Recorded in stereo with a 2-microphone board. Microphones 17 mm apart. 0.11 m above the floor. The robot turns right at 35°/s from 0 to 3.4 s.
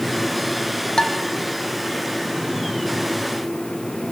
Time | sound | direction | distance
1.0 | dishes clattering | 60° left (ahead or behind) | 3 m